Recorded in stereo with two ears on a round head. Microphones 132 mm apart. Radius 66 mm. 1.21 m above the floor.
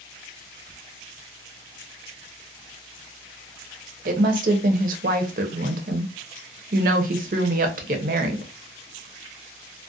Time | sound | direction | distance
4.0 | a woman speaking | 60° right (ahead or behind) | 0.6 m